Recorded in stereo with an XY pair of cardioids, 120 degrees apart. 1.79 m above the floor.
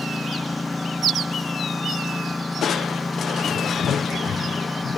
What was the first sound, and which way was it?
A lawn mower, 10° left.